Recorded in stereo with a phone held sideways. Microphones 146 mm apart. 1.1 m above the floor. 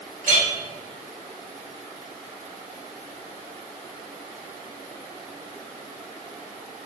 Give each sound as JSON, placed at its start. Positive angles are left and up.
{"t": 0.2, "sound": "a clink", "side_deg": -60, "distance_m": 2.5}